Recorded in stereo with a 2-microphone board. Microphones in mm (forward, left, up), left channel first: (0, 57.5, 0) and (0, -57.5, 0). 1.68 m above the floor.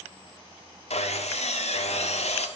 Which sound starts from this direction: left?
Sawing, at 0.9 s.